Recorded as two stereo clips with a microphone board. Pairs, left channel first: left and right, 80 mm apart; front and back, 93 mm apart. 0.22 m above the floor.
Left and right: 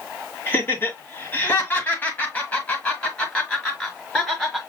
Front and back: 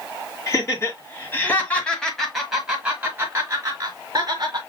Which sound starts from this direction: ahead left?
Laughter, at 0.5 s.